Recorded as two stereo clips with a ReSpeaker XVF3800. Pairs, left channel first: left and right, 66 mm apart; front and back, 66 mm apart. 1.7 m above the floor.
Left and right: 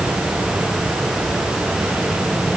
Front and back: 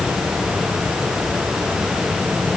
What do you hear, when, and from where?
Only background noise.